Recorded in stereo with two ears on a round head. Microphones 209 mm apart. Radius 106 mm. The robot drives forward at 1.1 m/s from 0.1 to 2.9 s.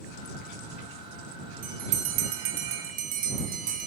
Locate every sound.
1.6 s a bell: 30° right (ahead or behind), 1.0 m; by 3.9 s 35° right (ahead or behind), 0.9 m